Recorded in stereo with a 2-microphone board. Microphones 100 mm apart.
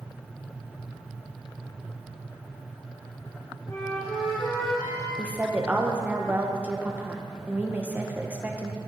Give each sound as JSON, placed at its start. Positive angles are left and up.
{"t": 3.7, "sound": "a flute", "side_deg": 30, "distance_m": 2.0}
{"t": 5.2, "sound": "a woman speaking", "side_deg": -15, "distance_m": 1.3}